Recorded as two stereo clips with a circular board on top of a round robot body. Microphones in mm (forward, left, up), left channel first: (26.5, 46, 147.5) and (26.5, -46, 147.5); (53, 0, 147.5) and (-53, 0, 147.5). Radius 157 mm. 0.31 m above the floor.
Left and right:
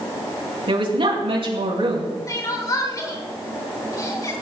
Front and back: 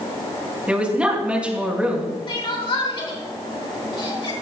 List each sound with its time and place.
0.7 s a woman speaking: 100° right, 5.5 m
2.3 s crying: 40° left, 4.5 m